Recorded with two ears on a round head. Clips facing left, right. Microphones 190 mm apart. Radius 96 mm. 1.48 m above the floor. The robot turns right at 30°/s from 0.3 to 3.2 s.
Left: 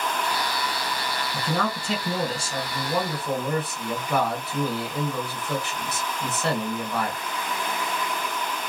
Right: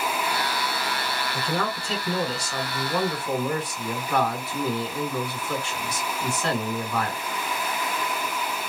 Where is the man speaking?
120° left, 1.4 m; by 7.2 s 175° left, 1.4 m.